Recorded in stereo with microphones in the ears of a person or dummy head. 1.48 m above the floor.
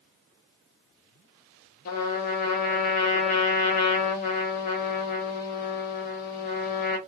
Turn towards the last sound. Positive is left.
turn(degrees=45)  # may be behind; listen again after turning